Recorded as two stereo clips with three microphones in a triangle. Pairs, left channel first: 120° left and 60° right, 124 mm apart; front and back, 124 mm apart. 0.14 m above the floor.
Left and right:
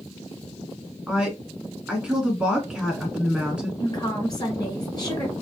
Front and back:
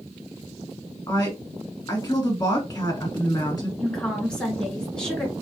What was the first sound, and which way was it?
A woman speaking, 15° left.